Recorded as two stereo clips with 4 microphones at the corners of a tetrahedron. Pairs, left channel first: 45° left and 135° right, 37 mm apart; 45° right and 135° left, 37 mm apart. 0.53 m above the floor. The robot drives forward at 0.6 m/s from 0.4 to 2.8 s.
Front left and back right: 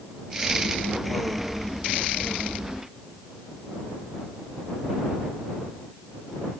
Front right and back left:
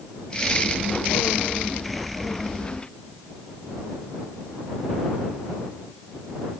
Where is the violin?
No violin in this recording.